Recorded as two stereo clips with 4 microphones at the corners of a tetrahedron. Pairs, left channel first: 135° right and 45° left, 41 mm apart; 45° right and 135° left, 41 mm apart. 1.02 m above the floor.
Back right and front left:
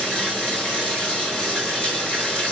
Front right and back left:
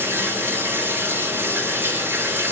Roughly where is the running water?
Behind.